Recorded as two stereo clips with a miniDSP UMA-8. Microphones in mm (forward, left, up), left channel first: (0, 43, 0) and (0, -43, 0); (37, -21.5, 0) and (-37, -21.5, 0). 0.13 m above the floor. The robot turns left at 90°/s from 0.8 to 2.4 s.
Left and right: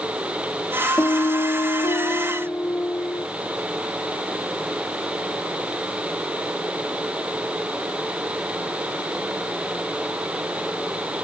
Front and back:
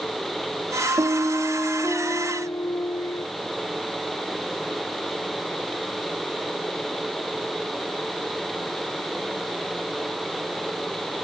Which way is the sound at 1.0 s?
145° left.